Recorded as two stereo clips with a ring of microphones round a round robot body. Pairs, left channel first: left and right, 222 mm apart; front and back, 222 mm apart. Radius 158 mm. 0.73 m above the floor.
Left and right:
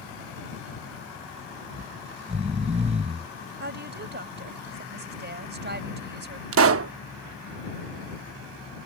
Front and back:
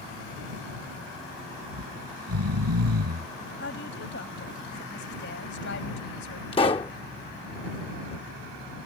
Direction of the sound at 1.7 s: 160° right.